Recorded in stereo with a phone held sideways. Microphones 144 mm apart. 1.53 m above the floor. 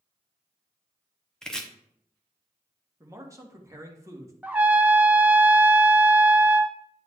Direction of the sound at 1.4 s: 5° left (ahead or behind).